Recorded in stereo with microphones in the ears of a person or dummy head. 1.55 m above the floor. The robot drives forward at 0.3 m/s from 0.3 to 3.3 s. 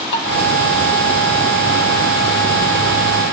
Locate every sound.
0.1 s dishes clattering: 60° left (ahead or behind), 2.5 m